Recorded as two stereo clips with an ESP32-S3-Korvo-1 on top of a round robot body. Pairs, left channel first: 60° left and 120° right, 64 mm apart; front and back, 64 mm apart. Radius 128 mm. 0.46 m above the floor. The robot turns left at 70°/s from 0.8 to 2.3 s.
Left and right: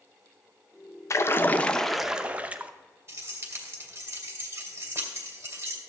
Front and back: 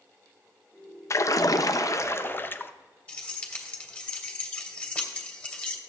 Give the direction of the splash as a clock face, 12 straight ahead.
11 o'clock.